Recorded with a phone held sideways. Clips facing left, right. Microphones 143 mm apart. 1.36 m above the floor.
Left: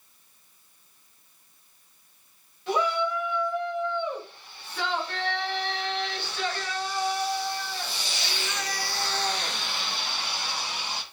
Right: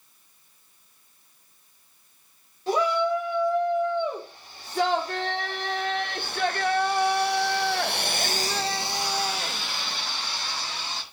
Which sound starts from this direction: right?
A shout, at 2.7 s.